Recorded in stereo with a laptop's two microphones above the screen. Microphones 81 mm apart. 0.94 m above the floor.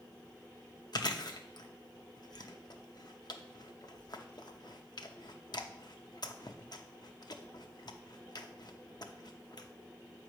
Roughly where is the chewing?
Left.